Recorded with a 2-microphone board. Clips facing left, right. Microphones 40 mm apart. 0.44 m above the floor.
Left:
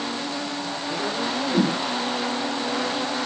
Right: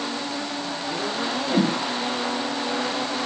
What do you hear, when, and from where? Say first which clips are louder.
1.5 s a whoosh: even; 40° right (ahead or behind), 1.7 m